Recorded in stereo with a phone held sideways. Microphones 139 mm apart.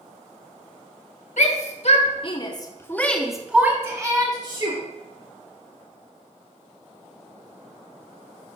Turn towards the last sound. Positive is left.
turn(degrees=-40)  # may be behind; listen again after turning